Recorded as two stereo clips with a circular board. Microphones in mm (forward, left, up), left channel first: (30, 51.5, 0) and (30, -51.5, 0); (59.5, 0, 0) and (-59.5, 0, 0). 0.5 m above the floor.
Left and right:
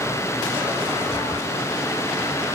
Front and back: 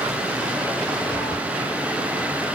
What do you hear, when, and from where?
1.1 s a cat meowing: 30° left, 1.4 m